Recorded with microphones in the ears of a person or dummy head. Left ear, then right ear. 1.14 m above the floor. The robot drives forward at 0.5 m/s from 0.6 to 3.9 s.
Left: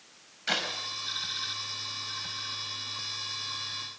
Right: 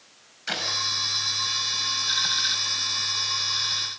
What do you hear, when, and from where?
0.5 s a clap: 10° left (ahead or behind), 5 m